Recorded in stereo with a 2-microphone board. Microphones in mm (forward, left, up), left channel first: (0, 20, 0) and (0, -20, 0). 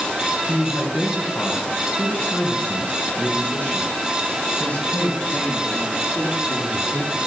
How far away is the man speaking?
About 3 m.